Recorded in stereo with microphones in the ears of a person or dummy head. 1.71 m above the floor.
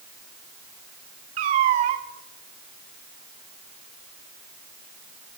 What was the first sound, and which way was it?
A cat meowing, 40° right (ahead or behind).